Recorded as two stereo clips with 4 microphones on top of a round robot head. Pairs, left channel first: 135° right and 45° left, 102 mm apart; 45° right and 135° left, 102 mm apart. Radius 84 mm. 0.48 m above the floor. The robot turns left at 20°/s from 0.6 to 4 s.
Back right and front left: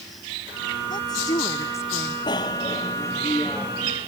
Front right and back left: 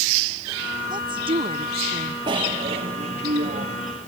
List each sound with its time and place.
0.9 s a woman speaking: straight behind; by 2.2 s 155° left
2.3 s a bicycle bell: 175° left; by 4.1 s 140° left